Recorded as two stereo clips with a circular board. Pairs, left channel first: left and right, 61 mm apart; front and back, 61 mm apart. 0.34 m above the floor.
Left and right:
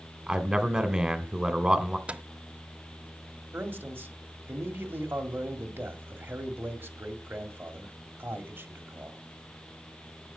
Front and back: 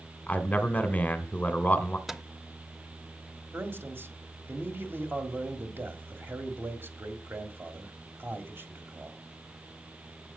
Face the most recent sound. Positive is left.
turn(degrees=-140)